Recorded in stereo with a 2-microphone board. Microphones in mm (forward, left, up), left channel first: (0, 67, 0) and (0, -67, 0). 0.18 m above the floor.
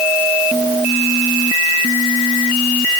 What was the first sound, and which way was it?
Only background noise.